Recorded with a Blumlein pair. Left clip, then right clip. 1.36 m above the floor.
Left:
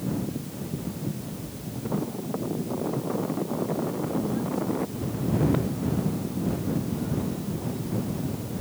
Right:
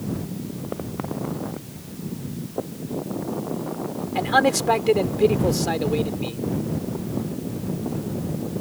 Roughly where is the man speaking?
Ahead right.